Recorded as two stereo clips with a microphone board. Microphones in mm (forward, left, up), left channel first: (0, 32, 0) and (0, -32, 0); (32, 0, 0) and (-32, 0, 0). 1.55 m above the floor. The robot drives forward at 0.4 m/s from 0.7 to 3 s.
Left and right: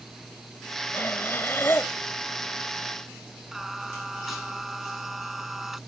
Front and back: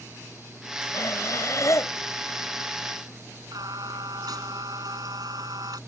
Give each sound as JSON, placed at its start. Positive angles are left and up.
{"t": 0.9, "sound": "breathing", "azimuth_deg": 35}
{"t": 3.5, "sound": "singing", "azimuth_deg": -175}